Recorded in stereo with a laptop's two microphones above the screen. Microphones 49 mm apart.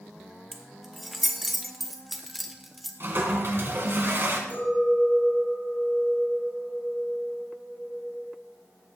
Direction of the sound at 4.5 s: 40° left (ahead or behind).